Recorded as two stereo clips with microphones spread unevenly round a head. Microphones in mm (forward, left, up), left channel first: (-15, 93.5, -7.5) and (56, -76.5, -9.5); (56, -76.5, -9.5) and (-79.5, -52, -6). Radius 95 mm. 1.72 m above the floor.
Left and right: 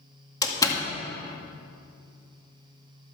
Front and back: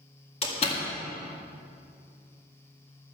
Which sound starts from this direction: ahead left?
A door slam, at 0.4 s.